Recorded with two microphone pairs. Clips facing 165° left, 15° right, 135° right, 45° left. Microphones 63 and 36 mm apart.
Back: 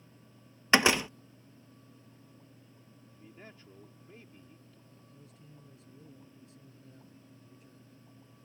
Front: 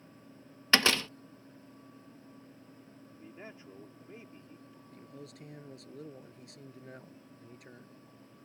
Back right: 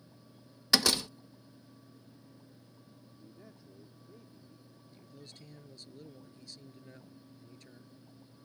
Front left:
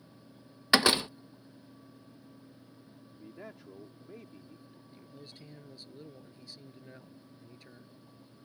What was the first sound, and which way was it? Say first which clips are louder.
A door slam: back 3 dB, front left 4 dB; 100° left.